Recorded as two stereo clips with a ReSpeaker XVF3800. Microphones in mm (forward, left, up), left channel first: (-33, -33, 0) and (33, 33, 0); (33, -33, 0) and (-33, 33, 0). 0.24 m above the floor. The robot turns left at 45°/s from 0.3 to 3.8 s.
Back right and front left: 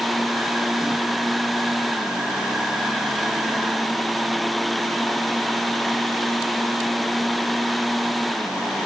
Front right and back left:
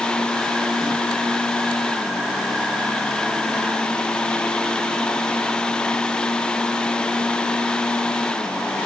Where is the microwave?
No microwave in this recording.